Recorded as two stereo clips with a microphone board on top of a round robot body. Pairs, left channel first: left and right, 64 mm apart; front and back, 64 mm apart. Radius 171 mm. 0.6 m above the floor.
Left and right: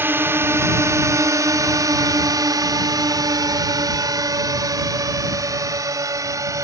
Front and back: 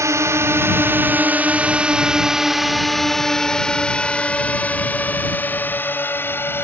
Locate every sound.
0.0 s a drone: 145° right; by 6.6 s 55° right